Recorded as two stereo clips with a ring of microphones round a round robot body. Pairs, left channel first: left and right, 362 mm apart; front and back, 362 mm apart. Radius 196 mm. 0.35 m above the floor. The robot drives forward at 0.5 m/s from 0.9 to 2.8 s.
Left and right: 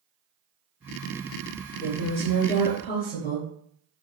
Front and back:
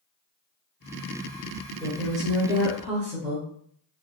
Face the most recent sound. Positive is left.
turn(degrees=130)